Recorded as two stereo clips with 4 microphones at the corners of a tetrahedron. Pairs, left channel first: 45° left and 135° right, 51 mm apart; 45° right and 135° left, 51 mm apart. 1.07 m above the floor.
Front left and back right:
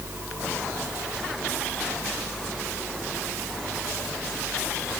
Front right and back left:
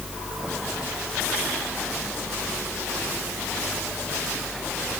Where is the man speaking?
I don't hear a man speaking.